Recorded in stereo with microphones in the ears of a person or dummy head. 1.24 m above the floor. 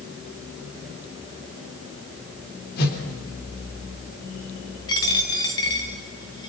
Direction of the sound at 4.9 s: 20° left (ahead or behind).